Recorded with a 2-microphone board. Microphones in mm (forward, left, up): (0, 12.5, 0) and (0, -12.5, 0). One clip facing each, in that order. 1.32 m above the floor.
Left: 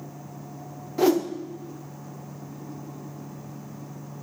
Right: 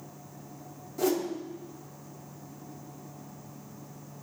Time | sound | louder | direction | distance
1.0 | a whoosh | left 7 dB | 45° left (ahead or behind) | 0.8 m